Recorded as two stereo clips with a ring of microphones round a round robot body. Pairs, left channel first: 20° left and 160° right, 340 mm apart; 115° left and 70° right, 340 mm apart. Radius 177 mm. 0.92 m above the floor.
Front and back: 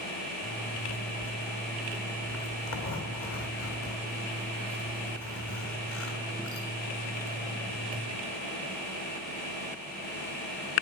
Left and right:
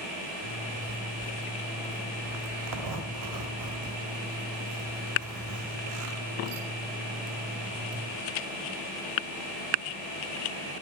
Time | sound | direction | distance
0.4 | a zipper | 30° right | 1.9 m